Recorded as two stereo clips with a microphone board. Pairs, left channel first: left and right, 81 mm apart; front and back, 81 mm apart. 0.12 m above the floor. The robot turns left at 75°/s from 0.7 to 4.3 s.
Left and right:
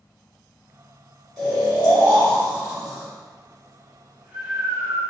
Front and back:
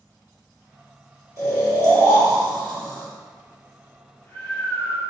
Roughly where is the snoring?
Behind.